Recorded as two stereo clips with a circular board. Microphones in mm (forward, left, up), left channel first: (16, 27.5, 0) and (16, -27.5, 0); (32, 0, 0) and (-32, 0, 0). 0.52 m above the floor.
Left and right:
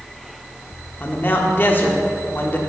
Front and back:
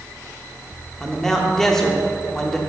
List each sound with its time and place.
1.0 s a man speaking: 80° left, 0.9 m